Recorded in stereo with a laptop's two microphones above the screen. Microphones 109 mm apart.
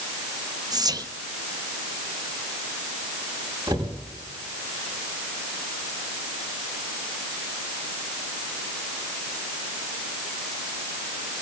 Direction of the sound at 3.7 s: 45° right (ahead or behind).